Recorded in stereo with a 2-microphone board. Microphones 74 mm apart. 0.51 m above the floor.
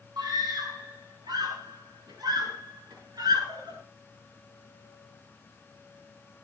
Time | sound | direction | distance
0.2 | a scream | 80° right | 6 m